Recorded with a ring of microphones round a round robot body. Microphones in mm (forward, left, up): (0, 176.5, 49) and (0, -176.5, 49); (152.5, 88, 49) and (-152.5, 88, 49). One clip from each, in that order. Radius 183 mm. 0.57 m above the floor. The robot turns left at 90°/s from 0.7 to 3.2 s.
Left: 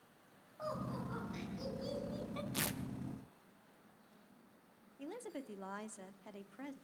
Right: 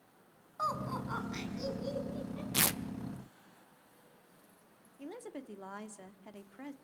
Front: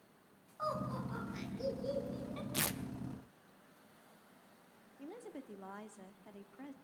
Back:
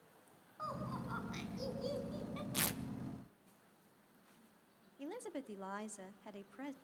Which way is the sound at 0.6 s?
95° right.